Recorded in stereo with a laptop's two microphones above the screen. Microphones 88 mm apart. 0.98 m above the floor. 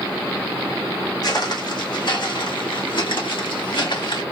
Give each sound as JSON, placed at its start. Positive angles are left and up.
{"t": 1.2, "sound": "footsteps", "side_deg": 50, "distance_m": 2.0}